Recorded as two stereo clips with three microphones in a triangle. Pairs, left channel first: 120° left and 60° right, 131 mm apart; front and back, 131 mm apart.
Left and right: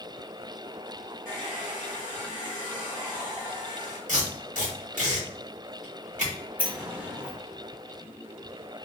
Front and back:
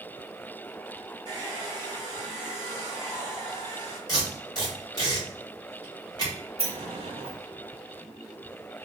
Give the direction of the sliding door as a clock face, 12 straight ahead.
5 o'clock.